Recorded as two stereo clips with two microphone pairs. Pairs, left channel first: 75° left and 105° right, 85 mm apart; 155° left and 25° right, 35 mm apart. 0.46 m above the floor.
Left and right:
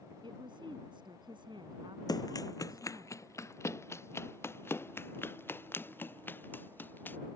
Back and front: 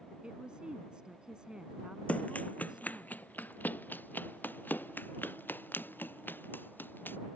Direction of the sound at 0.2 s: 85° right.